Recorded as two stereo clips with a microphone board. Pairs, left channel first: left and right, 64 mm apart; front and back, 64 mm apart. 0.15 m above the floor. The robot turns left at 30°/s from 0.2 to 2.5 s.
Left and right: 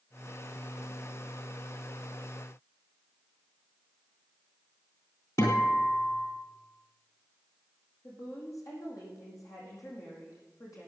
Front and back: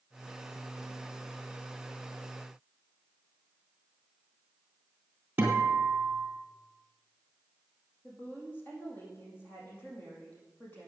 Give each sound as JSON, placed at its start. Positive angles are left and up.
{"t": 5.4, "sound": "a guitar", "azimuth_deg": 115, "distance_m": 3.5}
{"t": 8.0, "sound": "a woman speaking", "azimuth_deg": 60, "distance_m": 5.5}